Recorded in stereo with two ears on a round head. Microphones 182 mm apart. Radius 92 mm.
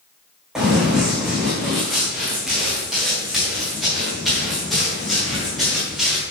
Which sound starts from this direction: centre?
Running footsteps, at 0.6 s.